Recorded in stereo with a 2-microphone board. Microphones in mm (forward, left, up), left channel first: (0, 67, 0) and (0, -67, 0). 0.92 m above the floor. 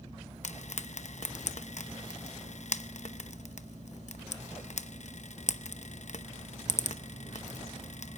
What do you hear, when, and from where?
0.4 s frying: 60° left (ahead or behind), 0.7 m